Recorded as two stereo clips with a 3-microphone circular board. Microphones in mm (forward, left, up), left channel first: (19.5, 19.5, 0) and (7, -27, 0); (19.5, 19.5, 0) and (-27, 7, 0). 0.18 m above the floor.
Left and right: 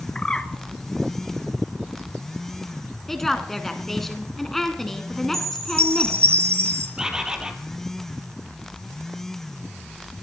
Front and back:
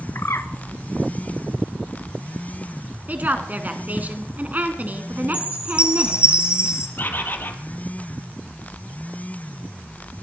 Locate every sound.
0.1 s a bird: 5° left, 0.9 m
3.1 s a woman speaking: 155° left, 2.0 m
5.3 s a chime: 100° right, 1.8 m
7.0 s a bird: 30° right, 1.6 m